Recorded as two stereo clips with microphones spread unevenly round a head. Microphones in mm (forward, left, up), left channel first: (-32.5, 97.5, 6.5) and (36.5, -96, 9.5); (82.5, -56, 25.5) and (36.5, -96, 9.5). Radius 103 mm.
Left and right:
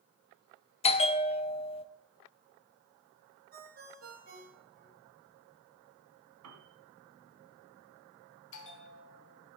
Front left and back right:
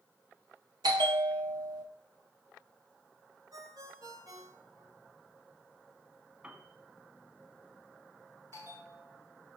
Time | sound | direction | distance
0.8 | a bell | 170° left | 0.7 m
3.5 | a ringtone | 120° right | 3 m
6.4 | a piano | 75° right | 2.5 m
8.5 | a bell | 140° left | 1.6 m